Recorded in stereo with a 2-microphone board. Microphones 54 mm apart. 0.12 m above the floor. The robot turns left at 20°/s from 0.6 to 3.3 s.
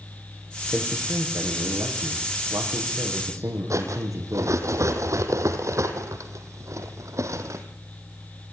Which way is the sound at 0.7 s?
35° right.